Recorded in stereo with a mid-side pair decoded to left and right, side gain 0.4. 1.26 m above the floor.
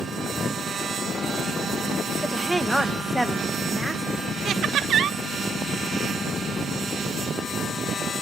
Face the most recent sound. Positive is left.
turn(degrees=-70)